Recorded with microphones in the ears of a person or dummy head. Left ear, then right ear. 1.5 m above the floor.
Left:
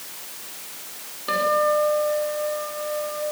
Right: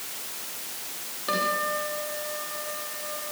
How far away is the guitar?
About 4.5 m.